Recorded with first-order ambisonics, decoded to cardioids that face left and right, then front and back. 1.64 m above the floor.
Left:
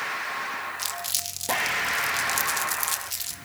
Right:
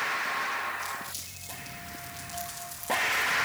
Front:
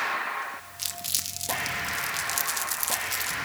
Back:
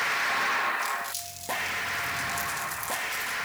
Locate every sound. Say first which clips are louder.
0.8 s crumpling: left 5 dB, back 2 dB; 50° left, 1.2 m